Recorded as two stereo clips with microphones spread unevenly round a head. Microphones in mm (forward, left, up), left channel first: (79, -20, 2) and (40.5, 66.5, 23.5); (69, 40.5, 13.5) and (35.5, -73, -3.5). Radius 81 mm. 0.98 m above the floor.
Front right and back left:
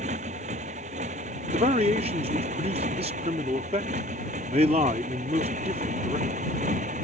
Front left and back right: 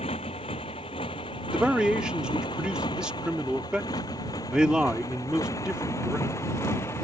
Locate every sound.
0.0 s a motorcycle: 135° left; by 7.0 s 150° left
1.5 s a man speaking: 170° left